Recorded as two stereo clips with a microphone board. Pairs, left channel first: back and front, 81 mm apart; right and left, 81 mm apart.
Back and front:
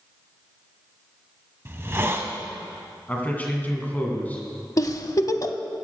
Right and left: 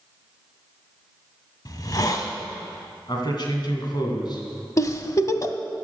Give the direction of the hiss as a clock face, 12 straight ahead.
2 o'clock.